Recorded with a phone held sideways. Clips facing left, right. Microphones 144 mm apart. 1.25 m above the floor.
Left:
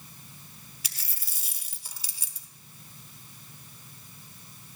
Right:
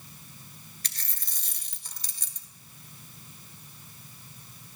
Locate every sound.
0.8 s a dropped coin: 10° left (ahead or behind), 1.0 m